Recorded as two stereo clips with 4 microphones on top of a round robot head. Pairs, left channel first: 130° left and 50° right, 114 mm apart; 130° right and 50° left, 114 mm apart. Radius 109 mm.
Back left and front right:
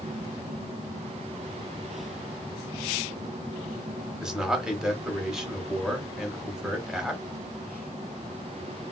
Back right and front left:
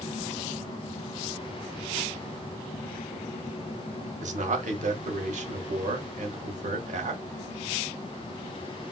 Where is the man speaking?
35° left, 1.0 m.